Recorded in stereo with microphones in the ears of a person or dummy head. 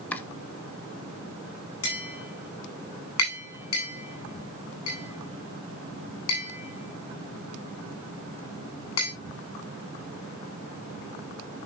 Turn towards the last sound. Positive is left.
turn(degrees=75)  # may be behind; listen again after turning